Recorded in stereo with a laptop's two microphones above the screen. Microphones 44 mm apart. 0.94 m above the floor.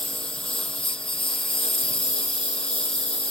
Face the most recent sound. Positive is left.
turn(degrees=20)  # may be behind; listen again after turning